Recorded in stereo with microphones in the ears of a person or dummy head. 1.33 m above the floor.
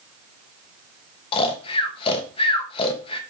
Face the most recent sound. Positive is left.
turn(degrees=30)  # may be behind; listen again after turning